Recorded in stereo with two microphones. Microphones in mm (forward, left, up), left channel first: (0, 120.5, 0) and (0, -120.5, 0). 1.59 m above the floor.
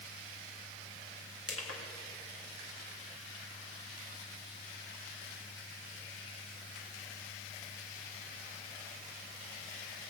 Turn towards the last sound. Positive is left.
turn(degrees=65)  # may be behind; listen again after turning